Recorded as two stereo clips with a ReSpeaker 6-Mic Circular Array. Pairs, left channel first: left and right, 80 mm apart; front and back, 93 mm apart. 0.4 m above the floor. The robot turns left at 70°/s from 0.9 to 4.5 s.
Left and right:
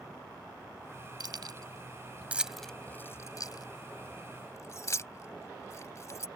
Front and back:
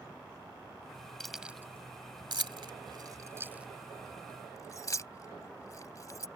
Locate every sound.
1.2 s keys jangling: 85° right; by 6.3 s 45° left